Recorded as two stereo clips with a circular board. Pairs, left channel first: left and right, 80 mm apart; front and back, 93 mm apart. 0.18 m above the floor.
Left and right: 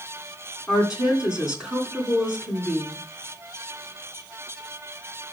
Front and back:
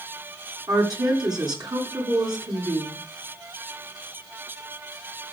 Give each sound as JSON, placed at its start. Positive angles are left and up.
{"t": 0.7, "sound": "a woman speaking", "azimuth_deg": -165, "distance_m": 2.0}